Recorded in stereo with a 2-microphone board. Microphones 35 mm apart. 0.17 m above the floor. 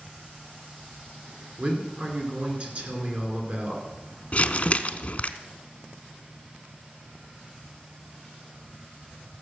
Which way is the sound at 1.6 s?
40° right (ahead or behind).